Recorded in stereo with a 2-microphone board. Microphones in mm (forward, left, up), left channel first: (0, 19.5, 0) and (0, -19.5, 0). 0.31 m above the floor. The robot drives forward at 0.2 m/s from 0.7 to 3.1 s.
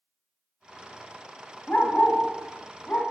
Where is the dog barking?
45° left (ahead or behind), 0.9 m; by 3.0 s 35° left (ahead or behind), 1.1 m.